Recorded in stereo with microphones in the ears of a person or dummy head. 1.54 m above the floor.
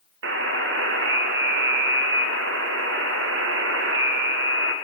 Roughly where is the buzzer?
Right.